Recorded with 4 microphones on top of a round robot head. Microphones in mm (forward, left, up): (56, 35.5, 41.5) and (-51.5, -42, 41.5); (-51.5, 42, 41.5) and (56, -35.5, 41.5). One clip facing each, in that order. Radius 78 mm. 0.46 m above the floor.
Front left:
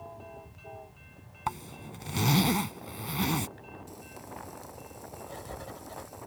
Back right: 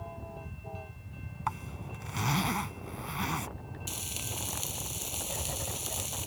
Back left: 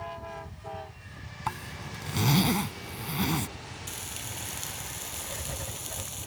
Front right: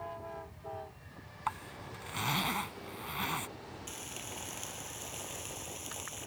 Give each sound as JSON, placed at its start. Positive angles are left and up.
{"t": 1.5, "sound": "a zipper", "azimuth_deg": 95}
{"t": 3.9, "sound": "frying", "azimuth_deg": -155}
{"t": 5.3, "sound": "writing", "azimuth_deg": 140}